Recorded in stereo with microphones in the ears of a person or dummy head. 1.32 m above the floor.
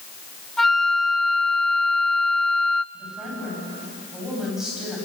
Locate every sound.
0.6 s a flute: centre (ahead or behind), 0.7 m
2.9 s a woman speaking: 5° right (ahead or behind), 9 m